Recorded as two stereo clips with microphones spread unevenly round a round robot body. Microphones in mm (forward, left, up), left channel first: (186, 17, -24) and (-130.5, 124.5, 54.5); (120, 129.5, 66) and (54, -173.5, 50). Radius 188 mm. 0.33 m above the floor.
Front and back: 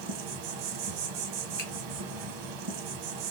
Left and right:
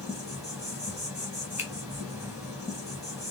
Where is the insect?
175° left, 0.9 m.